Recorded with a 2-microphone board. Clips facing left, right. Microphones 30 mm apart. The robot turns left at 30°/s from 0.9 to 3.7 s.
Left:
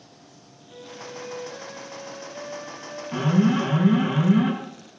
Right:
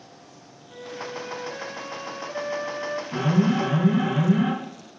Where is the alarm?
10° left (ahead or behind), 6 m; by 4.5 s 25° left (ahead or behind), 6 m.